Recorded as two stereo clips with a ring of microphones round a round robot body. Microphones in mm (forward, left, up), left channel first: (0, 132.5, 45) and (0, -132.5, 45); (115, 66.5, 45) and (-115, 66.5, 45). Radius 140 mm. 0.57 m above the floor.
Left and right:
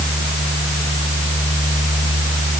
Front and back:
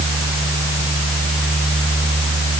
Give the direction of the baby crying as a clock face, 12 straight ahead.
No baby crying in this recording.